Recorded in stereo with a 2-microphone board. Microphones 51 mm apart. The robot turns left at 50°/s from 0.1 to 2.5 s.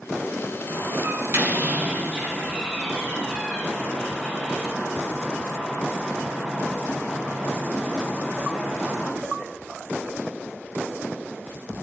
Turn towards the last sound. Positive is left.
turn(degrees=-5)  # may be behind; listen again after turning